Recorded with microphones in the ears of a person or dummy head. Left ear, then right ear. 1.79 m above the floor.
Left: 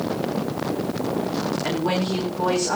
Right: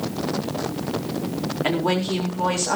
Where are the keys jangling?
No keys jangling in this recording.